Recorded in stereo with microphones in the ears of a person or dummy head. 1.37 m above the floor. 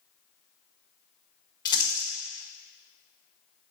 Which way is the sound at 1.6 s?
25° left (ahead or behind).